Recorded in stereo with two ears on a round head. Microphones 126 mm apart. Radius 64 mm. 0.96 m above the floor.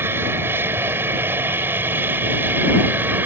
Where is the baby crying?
I don't hear a baby crying.